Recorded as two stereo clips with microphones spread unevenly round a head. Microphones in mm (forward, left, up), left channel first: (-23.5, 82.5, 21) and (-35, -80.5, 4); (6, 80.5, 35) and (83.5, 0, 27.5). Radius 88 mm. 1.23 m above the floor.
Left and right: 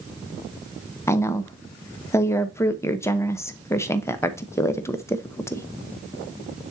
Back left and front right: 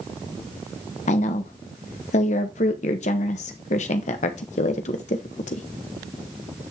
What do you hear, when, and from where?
1.1 s a woman speaking: 160° left, 0.9 m